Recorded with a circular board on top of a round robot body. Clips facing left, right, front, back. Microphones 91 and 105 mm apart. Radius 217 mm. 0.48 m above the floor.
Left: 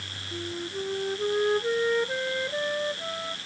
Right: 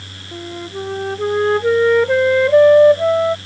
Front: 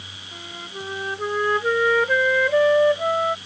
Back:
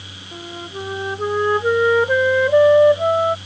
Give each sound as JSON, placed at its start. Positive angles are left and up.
{"t": 0.3, "sound": "a flute", "azimuth_deg": -110}